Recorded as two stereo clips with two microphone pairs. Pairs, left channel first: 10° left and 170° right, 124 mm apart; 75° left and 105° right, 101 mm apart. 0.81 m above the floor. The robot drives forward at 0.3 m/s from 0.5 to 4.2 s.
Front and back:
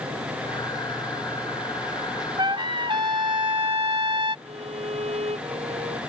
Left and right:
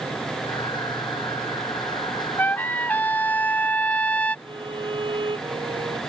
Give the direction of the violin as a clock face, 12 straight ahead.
5 o'clock.